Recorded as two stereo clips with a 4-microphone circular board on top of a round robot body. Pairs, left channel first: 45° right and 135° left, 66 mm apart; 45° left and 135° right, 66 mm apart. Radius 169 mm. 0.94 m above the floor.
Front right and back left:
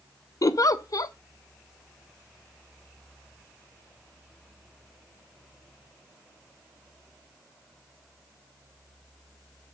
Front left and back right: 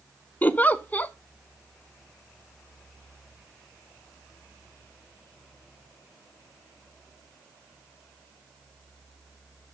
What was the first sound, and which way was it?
A giggle, 20° right.